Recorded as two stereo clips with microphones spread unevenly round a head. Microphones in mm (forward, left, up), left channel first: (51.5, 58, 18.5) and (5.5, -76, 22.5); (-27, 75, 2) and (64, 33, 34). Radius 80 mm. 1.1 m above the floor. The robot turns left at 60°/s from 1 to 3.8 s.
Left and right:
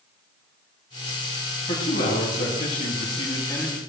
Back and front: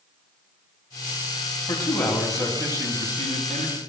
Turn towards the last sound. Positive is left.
turn(degrees=-15)